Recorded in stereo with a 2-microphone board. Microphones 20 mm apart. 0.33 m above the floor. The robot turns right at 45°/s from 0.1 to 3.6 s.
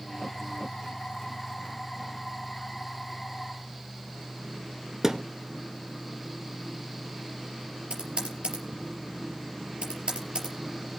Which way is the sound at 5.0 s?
20° right (ahead or behind).